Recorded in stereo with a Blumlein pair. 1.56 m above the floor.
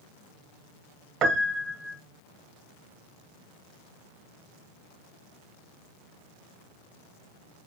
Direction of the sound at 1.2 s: 25° right.